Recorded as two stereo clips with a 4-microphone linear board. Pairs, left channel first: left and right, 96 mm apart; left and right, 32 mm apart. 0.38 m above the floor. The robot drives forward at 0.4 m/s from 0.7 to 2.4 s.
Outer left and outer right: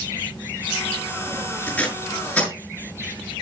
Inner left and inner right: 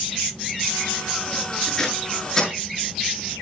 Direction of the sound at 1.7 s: 15° left (ahead or behind).